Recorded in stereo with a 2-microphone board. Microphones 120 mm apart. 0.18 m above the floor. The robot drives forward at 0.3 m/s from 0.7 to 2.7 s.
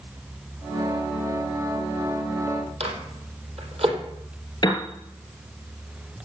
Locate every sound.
2.8 s a microwave: 70° right (ahead or behind), 3.5 m
4.6 s a piano: 40° left (ahead or behind), 3.5 m